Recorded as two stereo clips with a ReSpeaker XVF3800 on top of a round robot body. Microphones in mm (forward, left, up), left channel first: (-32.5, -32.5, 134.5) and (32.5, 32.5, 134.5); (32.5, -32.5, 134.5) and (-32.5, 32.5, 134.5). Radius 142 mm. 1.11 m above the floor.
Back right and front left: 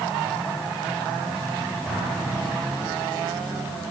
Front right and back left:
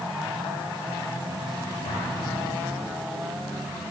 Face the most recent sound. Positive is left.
turn(degrees=-40)